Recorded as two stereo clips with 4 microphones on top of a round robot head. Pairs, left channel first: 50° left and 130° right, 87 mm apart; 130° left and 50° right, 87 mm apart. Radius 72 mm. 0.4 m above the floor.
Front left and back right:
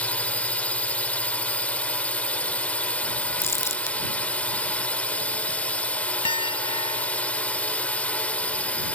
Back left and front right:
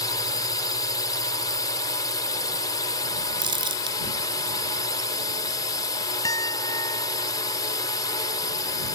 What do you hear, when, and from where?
0.0 s a drone: 120° left
3.4 s crumpling: 10° right
6.2 s a piano: 80° left